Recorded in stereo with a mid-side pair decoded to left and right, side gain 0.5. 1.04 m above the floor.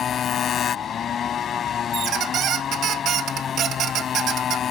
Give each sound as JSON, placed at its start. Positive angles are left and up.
{"t": 0.0, "sound": "a motorcycle", "azimuth_deg": 50}
{"t": 1.9, "sound": "a squeak", "azimuth_deg": -65}